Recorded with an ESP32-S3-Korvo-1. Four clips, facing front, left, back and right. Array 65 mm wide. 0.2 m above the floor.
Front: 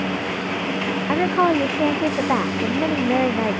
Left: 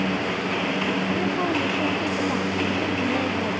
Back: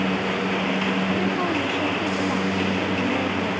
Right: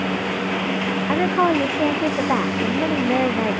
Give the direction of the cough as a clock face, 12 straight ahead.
No cough in this recording.